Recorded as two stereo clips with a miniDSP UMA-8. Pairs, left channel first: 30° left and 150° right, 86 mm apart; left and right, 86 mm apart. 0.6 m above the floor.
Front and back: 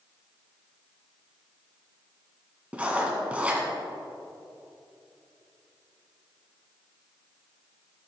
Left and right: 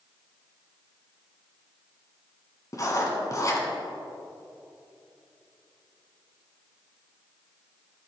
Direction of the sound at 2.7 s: 135° left.